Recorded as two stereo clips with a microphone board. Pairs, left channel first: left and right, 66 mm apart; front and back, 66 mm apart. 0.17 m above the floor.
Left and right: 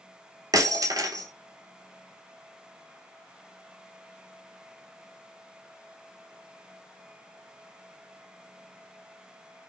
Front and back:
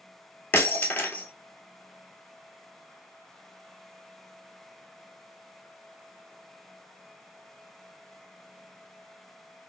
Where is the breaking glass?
60° right, 0.6 m.